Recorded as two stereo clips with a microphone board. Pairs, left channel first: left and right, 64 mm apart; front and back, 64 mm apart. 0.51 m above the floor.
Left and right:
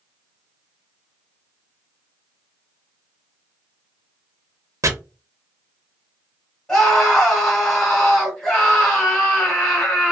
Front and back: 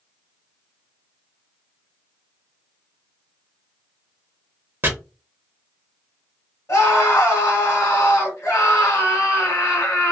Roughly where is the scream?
Ahead.